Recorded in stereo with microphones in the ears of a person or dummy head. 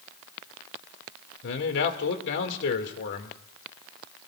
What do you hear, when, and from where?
1.4 s a man speaking: 60° left (ahead or behind), 2 m